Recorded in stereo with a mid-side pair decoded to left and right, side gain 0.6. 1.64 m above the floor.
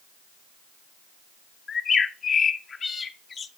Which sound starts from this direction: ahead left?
A bird, at 1.7 s.